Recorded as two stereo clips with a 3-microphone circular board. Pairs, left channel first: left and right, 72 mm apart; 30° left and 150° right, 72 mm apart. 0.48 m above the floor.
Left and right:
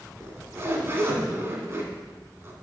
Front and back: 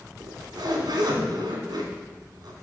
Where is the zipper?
145° right, 1.9 m.